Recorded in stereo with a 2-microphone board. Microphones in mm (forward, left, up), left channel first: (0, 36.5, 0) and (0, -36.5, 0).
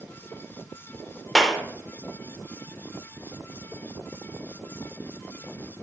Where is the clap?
5° left (ahead or behind), 0.6 m.